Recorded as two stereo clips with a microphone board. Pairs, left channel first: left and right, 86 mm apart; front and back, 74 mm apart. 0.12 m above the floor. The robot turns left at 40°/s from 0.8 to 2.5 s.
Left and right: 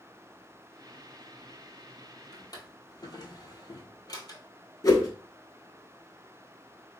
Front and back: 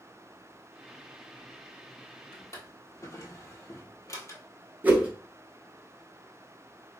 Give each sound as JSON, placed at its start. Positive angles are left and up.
{"t": 2.3, "sound": "a drawer", "azimuth_deg": 55, "distance_m": 0.9}
{"t": 4.8, "sound": "a whoosh", "azimuth_deg": 125, "distance_m": 0.9}